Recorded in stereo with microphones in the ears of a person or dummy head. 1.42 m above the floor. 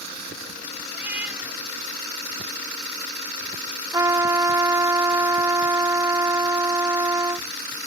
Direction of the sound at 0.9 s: 5° right (ahead or behind).